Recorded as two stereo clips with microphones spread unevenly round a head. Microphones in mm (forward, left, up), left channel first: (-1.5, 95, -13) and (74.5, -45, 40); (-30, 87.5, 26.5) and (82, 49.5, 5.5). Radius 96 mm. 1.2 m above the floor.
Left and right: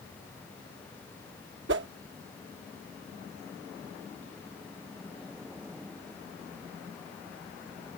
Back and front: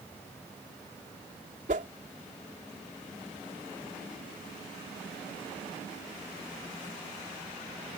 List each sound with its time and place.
1.7 s a whoosh: 70° right